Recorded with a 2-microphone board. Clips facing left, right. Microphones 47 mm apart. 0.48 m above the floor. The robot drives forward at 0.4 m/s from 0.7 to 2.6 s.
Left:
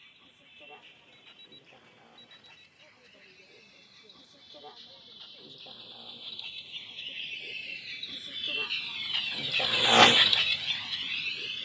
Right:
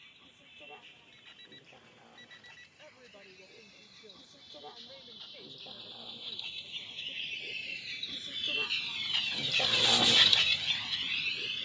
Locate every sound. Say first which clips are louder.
0.0 s a vehicle: even; 5° left (ahead or behind); by 11.7 s centre (ahead or behind)
1.1 s an alarm clock: even; 75° right (ahead or behind); by 2.7 s 60° right (ahead or behind)
2.8 s a woman speaking: right 3 dB; 45° right (ahead or behind)